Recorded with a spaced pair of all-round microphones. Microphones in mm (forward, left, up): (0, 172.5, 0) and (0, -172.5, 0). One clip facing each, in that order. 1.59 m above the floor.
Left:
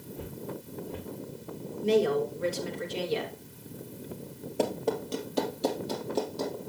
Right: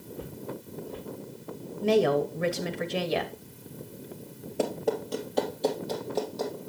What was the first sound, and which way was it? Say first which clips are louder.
Footsteps: right 1 dB; 35° left (ahead or behind).